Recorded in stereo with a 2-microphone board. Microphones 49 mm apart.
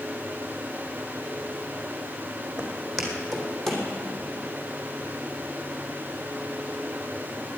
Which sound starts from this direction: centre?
Footsteps, at 2.6 s.